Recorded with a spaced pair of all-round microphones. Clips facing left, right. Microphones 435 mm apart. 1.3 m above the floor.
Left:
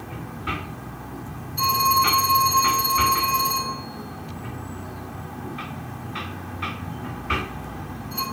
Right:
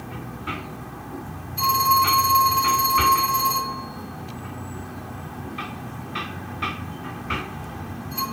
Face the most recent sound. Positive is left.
turn(degrees=-20)  # may be behind; listen again after turning